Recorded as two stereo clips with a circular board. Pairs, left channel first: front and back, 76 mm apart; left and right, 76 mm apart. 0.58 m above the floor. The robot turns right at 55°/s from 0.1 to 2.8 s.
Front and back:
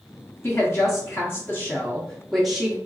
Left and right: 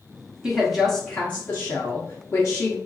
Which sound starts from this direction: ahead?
A woman speaking, at 0.4 s.